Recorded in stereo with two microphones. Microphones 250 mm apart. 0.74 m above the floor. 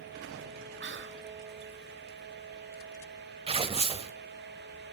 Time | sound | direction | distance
0.8 | whispering | 45° right (ahead or behind) | 0.7 m
3.5 | tearing paper | 25° right (ahead or behind) | 0.5 m